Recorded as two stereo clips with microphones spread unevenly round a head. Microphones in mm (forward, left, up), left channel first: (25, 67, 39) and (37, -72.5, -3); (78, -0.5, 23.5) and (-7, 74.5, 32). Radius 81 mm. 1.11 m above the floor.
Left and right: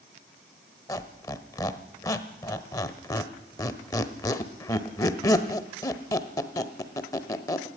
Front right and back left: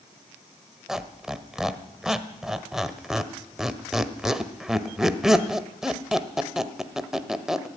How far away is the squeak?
About 1.1 m.